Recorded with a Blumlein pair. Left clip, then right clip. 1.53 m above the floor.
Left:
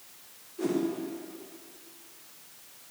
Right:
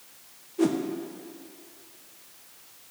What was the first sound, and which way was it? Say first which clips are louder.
A whoosh: right 5 dB; 65° right.